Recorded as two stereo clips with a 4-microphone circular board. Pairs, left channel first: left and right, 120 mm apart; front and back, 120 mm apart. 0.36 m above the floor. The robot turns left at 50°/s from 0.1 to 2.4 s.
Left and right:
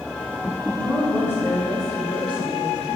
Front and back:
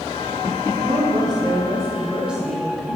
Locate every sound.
0.7 s a woman speaking: straight behind, 1.9 m; by 3.0 s 95° left, 1.9 m